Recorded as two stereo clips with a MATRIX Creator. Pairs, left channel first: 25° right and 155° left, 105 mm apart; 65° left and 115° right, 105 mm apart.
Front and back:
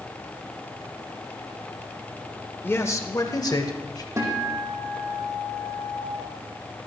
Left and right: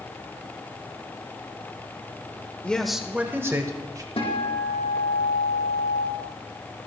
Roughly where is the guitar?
Left.